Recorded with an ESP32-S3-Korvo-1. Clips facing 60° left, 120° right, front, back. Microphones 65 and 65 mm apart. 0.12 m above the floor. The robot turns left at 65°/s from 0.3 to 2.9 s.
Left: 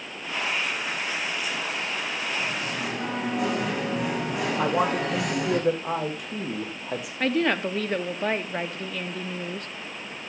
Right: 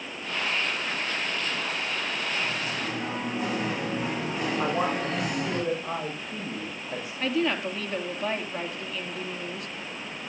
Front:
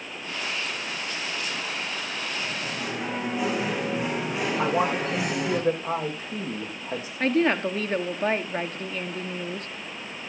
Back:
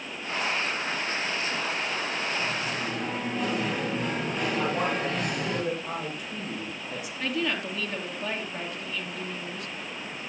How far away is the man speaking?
About 7 m.